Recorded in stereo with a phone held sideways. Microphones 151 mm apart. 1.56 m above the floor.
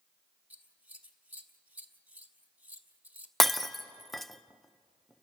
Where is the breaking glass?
Centre (ahead or behind), 0.6 m.